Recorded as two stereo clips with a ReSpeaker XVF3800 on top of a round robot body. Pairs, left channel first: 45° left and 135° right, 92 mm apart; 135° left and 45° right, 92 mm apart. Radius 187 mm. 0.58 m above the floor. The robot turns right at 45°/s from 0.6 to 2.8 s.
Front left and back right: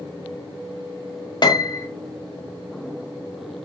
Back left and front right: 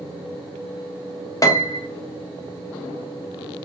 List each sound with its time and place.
1.4 s a piano: 80° left, 0.9 m; by 1.9 s 100° left, 0.9 m